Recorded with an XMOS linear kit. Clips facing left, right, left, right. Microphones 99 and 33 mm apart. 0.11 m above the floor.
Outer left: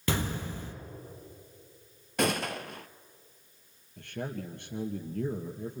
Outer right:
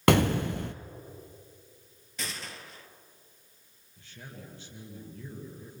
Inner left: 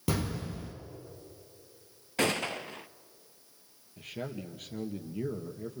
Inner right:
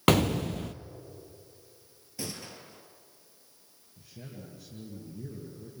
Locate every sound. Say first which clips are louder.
0.1 s an explosion: outer right 9 dB, inner right 9 dB; 65° right (ahead or behind), 0.9 m
2.2 s a gunshot: outer left 12 dB, inner left 11 dB; 60° left (ahead or behind), 0.7 m
4.0 s a man speaking: outer left 11 dB, inner left 8 dB; 60° left (ahead or behind), 2.5 m